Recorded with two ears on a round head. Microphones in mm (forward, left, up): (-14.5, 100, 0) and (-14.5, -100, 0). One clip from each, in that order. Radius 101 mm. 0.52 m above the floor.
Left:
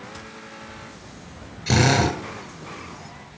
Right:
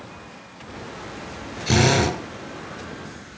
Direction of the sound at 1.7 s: Centre (ahead or behind).